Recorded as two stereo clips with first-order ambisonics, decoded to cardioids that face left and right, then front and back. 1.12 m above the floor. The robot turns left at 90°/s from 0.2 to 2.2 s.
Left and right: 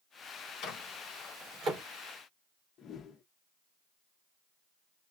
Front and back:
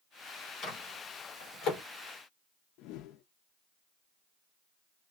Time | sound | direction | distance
0.6 | a microwave | 55° left | 3.5 m
2.8 | a whoosh | 30° left | 0.6 m